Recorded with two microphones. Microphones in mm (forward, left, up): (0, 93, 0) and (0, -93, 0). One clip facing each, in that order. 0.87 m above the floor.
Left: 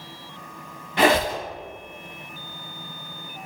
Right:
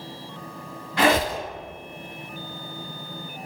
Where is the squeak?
20° left (ahead or behind), 0.7 m.